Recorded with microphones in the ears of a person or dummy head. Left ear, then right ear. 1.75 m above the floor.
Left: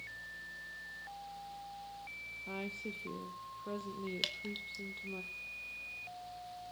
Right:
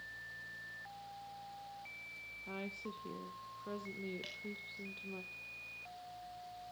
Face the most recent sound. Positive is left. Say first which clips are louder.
# left 8 dB
turn(degrees=50)  # may be behind; listen again after turning